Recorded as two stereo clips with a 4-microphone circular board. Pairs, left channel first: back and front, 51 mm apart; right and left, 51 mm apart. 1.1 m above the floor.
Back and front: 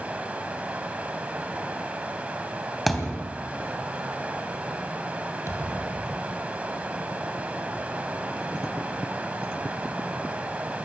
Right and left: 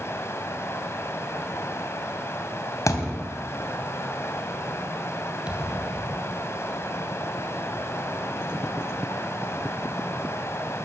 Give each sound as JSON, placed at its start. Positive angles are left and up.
{"t": 0.0, "sound": "running water", "azimuth_deg": -65, "distance_m": 2.5}
{"t": 2.9, "sound": "a thud", "azimuth_deg": -90, "distance_m": 3.0}
{"t": 5.5, "sound": "a thud", "azimuth_deg": 160, "distance_m": 2.5}